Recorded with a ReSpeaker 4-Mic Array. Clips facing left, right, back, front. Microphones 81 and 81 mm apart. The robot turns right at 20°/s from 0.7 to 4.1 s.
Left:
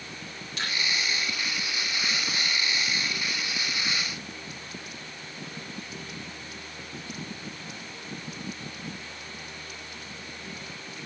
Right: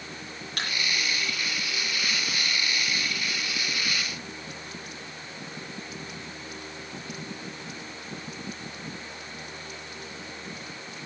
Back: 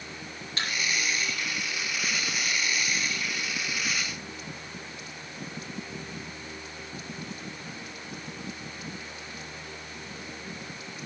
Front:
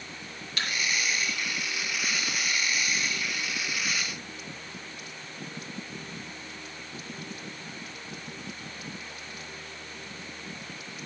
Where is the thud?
120° right, 7.5 m.